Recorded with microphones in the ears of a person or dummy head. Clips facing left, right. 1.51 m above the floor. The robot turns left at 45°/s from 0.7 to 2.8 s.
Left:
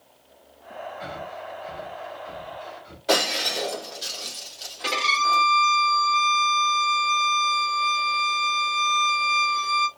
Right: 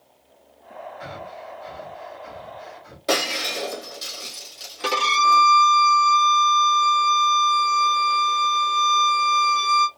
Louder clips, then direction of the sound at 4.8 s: Right 5 dB; 80° right.